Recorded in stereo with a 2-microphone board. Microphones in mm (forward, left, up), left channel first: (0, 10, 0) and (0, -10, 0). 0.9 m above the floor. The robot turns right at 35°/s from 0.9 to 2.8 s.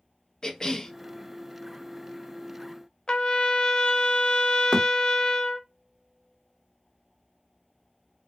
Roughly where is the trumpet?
Left.